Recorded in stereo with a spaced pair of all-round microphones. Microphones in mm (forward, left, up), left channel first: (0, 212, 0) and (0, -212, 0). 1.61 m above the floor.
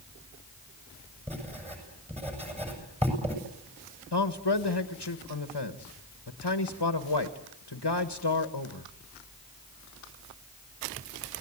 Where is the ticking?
I don't hear ticking.